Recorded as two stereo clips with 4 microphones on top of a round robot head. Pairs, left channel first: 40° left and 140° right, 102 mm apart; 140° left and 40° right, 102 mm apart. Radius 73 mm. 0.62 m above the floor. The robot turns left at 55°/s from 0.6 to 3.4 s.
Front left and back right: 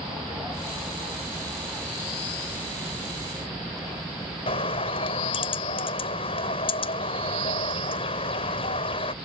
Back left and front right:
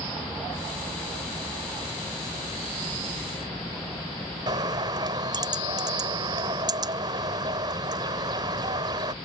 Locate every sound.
4.5 s a bird: 10° left